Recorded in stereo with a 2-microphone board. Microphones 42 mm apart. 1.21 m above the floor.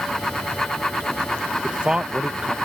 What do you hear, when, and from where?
1.6 s a man speaking: 25° right (ahead or behind)